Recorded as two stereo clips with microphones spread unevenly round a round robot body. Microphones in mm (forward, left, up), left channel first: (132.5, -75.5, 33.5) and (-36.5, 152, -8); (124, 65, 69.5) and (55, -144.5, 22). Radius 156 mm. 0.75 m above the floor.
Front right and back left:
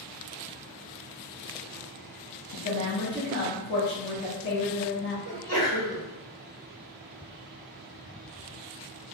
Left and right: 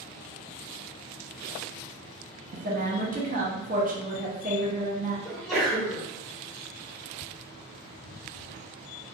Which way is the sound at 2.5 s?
105° right.